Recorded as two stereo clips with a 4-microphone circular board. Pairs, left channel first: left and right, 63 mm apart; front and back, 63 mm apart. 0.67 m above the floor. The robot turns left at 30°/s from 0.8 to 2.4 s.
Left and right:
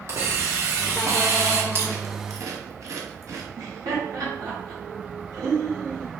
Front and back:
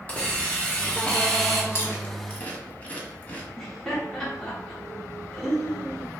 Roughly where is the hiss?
Ahead right.